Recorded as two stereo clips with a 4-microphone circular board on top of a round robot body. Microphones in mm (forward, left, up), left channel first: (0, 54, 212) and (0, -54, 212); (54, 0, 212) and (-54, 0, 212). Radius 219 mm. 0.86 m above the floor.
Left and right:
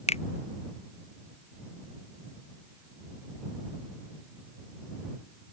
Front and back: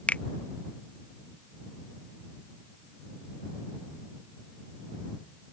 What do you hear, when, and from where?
0.1 s a finger snap: 80° left